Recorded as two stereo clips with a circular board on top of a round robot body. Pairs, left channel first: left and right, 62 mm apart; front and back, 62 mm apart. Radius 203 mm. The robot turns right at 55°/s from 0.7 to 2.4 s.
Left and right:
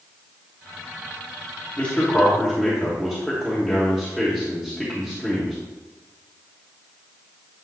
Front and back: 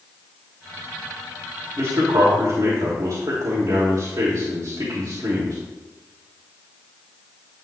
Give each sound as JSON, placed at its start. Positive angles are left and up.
{"t": 1.8, "sound": "a man speaking", "azimuth_deg": 150, "distance_m": 2.5}